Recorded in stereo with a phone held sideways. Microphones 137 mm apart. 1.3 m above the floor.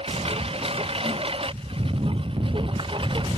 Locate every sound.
0.0 s a lawn mower: 45° right (ahead or behind); by 3.4 s 40° right (ahead or behind)